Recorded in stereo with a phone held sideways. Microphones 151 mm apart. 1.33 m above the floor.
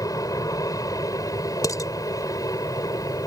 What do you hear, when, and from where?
0.0 s an aircraft: 25° left (ahead or behind)
1.6 s dishes clattering: 25° left (ahead or behind)